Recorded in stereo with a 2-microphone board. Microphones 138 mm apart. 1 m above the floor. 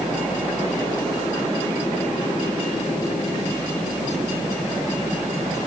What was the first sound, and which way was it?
Only background noise.